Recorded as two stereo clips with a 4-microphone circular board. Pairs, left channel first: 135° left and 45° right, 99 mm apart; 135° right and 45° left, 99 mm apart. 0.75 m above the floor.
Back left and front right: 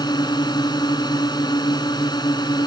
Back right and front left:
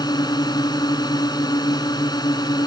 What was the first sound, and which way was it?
A drone, straight behind.